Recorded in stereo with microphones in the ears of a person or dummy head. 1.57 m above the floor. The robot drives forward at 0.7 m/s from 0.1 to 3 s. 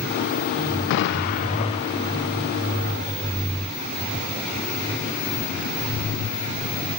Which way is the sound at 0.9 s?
65° left (ahead or behind).